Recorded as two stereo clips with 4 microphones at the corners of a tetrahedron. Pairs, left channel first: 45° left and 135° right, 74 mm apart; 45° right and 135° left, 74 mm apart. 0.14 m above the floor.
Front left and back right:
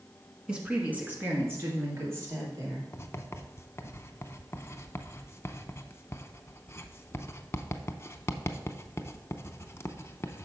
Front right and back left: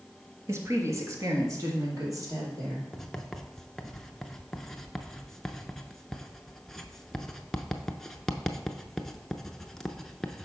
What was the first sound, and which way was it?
A woman speaking, 155° left.